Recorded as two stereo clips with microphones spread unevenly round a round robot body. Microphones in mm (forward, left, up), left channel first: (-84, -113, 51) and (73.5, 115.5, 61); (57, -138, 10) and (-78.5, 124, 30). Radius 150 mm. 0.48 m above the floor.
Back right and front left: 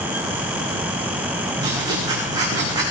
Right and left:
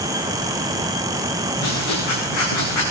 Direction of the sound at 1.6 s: 20° right.